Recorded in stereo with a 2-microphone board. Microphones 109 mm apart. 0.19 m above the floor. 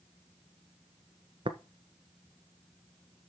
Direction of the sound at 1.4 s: 55° right (ahead or behind).